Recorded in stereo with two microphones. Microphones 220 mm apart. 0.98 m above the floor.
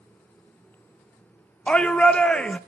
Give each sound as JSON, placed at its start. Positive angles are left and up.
{"t": 1.7, "sound": "a shout", "side_deg": 5, "distance_m": 0.5}